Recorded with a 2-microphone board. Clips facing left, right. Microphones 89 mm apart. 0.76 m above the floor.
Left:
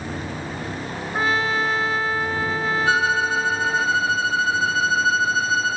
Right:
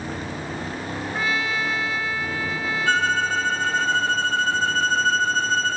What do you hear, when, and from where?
1.1 s a trumpet: 35° left (ahead or behind)
2.9 s a violin: 10° left (ahead or behind)